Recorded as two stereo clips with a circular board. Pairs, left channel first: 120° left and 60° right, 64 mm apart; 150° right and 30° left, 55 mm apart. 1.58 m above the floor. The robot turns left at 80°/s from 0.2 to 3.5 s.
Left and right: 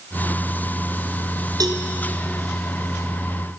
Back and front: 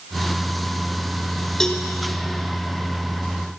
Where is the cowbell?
65° right, 0.7 m; by 1.8 s 85° right, 0.7 m.